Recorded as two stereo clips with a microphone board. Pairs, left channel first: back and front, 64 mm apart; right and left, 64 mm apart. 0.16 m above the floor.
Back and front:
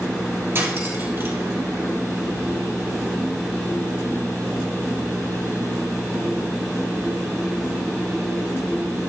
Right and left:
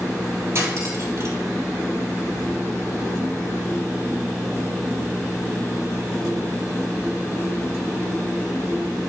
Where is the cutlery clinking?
50° left, 3 m.